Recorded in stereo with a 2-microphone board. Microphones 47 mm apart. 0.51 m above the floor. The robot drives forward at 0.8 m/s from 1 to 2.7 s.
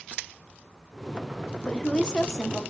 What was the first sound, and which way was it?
A woman speaking, 20° left (ahead or behind).